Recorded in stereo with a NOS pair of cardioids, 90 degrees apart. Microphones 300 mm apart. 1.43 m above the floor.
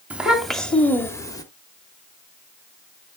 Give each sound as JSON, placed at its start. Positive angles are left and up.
{"t": 0.1, "sound": "a child speaking", "azimuth_deg": -5, "distance_m": 2.5}